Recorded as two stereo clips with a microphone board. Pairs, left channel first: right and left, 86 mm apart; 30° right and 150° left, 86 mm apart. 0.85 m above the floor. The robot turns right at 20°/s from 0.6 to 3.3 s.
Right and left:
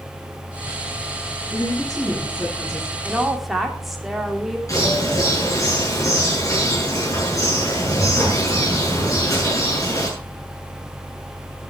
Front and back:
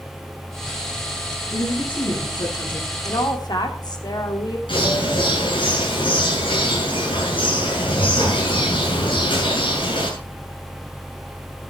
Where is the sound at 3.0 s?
5° right, 2.5 m; by 4.6 s straight ahead, 2.5 m.